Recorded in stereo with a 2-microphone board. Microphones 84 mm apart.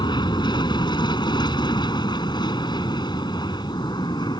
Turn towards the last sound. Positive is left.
turn(degrees=60)  # may be behind; listen again after turning